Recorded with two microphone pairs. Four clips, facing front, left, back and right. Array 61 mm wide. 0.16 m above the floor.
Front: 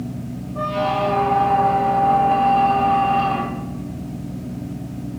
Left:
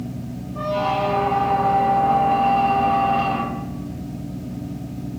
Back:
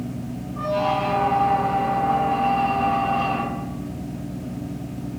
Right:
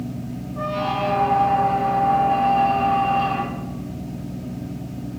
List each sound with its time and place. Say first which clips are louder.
0.6 s a squeak: left 2 dB, front 1 dB; 40° left, 3 m